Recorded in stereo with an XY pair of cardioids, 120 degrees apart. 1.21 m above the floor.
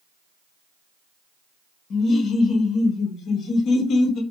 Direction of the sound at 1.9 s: 55° left.